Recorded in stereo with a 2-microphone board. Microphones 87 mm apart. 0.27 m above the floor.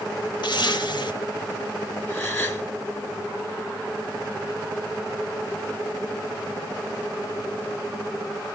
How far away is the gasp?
About 1.2 m.